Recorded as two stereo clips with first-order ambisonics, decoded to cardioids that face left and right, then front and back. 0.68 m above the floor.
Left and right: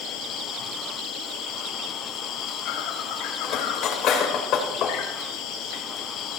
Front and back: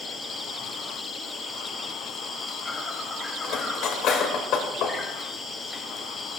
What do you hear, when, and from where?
0.0 s an insect: 70° left, 1.5 m
3.4 s cutlery clinking: 45° left, 1.8 m